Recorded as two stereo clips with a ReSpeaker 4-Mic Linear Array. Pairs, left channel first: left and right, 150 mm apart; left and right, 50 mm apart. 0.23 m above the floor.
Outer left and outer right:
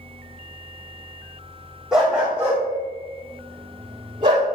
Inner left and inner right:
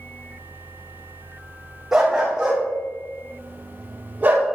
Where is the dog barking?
5° right (ahead or behind), 3 m; by 4.5 s 40° right (ahead or behind), 2 m.